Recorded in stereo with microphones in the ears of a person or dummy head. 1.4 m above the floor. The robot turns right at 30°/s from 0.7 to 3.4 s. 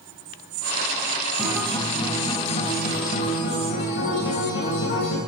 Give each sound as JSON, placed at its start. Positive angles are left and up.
{"t": 1.4, "sound": "a guitar", "azimuth_deg": 5, "distance_m": 3.5}